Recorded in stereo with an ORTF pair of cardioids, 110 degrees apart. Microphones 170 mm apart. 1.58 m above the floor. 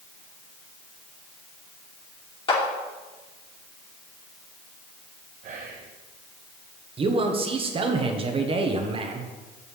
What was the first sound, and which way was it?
A clap, 30° left.